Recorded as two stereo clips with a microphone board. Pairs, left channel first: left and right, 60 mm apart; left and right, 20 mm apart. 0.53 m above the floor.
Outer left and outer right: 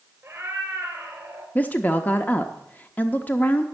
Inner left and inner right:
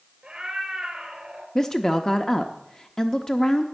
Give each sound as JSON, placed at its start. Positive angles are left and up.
{"t": 0.2, "sound": "a cat meowing", "side_deg": -35, "distance_m": 2.5}
{"t": 1.6, "sound": "a woman speaking", "side_deg": 25, "distance_m": 0.7}